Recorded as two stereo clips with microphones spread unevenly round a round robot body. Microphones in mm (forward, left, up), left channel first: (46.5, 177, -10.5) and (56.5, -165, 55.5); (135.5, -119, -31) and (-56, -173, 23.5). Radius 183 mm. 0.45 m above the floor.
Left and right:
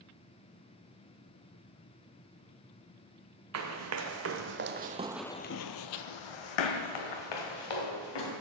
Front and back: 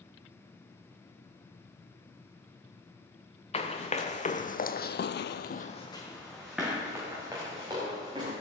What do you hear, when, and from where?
3.5 s running footsteps: 50° right, 2 m; by 8.3 s 120° left, 3 m